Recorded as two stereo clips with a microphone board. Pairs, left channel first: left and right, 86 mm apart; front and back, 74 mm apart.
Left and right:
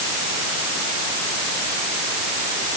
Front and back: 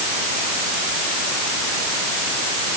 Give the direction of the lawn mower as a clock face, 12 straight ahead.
No lawn mower in this recording.